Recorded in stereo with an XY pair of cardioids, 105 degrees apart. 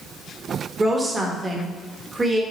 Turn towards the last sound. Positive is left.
turn(degrees=-25)